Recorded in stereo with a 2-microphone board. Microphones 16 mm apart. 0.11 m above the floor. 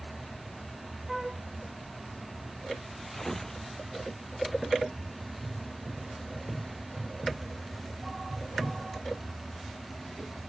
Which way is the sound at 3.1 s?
20° left (ahead or behind).